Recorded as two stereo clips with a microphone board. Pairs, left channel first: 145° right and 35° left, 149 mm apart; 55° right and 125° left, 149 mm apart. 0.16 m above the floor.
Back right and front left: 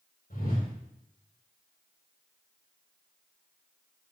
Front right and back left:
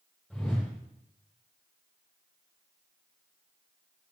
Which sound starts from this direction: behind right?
A whoosh, at 0.3 s.